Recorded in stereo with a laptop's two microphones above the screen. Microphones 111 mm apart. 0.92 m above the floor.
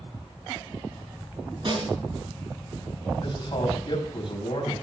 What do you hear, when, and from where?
1.6 s a snare drum: 50° right (ahead or behind), 6.5 m
3.2 s a man speaking: 50° left (ahead or behind), 5 m